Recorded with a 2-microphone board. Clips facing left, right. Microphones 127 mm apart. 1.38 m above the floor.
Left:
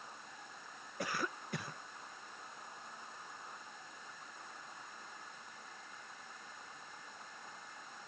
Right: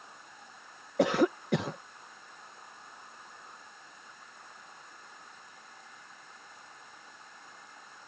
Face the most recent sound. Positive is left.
turn(degrees=-85)